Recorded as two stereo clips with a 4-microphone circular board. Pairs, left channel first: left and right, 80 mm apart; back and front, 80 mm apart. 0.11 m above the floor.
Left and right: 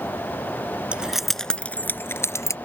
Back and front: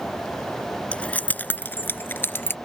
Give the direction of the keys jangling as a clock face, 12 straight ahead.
5 o'clock.